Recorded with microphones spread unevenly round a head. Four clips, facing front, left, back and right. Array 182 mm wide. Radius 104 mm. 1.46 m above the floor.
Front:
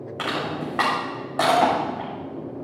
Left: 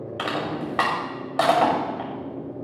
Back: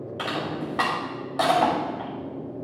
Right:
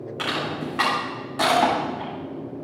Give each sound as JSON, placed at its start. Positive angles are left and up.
{"t": 0.2, "sound": "crushing", "azimuth_deg": 55, "distance_m": 6.0}